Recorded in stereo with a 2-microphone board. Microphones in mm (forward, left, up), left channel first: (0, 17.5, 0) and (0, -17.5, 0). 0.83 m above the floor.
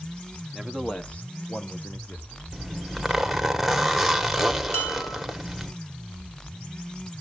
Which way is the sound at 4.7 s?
70° left (ahead or behind).